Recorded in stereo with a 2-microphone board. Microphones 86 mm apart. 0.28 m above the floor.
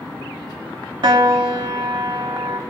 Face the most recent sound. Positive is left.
turn(degrees=-60)  # may be behind; listen again after turning